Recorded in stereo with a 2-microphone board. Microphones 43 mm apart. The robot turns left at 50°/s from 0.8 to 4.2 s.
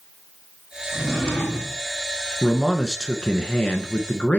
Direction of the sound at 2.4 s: Centre (ahead or behind).